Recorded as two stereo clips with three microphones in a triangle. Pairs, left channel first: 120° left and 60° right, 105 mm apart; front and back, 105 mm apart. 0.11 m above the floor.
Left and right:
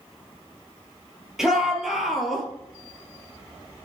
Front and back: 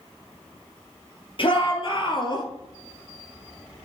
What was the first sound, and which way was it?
A shout, 25° left.